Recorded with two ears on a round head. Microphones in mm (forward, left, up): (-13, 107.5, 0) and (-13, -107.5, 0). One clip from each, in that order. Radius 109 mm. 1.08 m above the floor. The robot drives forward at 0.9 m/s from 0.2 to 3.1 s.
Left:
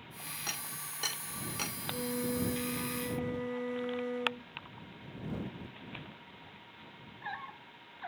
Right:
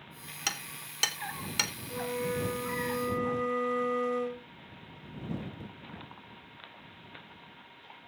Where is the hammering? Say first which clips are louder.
Right 7 dB; 75° right (ahead or behind), 3.5 m; by 1.7 s 60° right (ahead or behind), 4 m.